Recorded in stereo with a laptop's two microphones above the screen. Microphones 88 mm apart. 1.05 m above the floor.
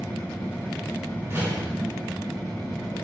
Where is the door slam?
30° right (ahead or behind), 4.5 m.